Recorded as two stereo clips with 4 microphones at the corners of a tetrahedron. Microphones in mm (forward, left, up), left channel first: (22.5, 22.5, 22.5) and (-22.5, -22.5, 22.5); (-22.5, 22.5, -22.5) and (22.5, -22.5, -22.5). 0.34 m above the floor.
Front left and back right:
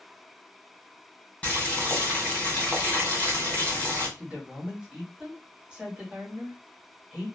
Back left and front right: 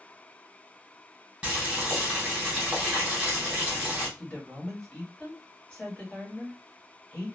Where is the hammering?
I don't hear hammering.